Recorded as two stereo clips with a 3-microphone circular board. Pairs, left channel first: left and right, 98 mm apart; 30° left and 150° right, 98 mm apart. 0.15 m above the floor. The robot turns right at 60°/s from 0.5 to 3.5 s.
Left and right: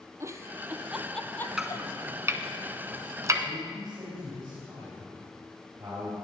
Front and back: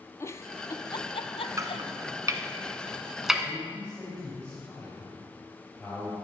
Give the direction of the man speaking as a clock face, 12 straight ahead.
2 o'clock.